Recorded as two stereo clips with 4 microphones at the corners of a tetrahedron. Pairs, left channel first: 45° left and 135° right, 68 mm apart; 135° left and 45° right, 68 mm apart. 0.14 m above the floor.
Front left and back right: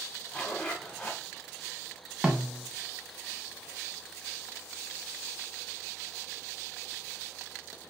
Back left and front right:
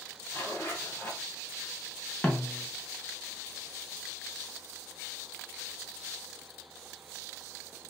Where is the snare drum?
165° left, 0.7 m.